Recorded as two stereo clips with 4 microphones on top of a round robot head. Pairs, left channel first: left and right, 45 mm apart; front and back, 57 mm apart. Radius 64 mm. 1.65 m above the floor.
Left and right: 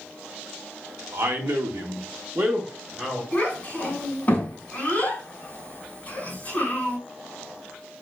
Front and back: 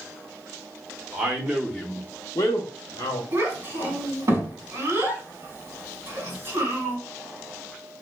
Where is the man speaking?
115° right, 0.9 m; by 3.2 s straight ahead, 0.8 m.